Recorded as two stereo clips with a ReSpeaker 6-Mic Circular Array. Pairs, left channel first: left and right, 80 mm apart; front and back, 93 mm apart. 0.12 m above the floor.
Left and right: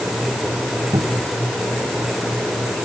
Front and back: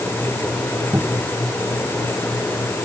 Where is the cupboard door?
110° right.